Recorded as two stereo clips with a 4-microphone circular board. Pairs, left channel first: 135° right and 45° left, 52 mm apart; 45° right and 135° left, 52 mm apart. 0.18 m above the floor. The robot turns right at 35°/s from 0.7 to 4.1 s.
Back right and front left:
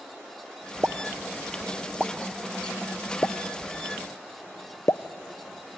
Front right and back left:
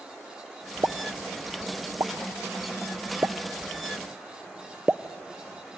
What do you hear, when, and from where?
0.8 s a pop: 95° left, 0.5 m; by 5.8 s 150° right, 0.5 m